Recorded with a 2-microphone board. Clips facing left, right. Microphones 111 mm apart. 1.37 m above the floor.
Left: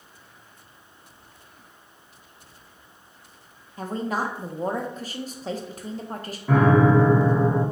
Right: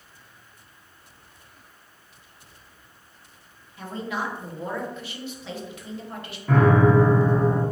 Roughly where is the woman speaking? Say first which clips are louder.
Left 3 dB; left.